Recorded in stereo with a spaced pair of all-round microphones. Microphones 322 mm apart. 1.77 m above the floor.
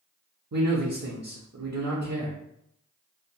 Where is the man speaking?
55° right (ahead or behind), 0.5 m.